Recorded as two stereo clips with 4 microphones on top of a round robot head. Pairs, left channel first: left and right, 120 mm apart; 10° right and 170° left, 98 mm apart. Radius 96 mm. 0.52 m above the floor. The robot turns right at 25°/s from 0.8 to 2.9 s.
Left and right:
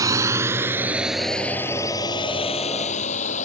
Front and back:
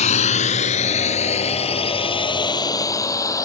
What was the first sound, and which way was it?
A drone, 20° right.